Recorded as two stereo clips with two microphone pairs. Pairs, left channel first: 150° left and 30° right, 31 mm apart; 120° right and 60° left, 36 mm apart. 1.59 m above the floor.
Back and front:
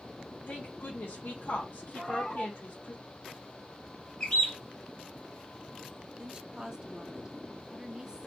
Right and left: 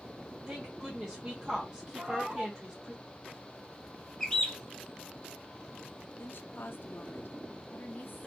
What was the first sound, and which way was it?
A woman speaking, 135° left.